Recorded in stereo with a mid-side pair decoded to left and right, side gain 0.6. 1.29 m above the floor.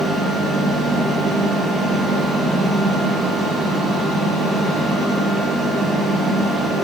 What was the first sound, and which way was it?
A fan, 30° right.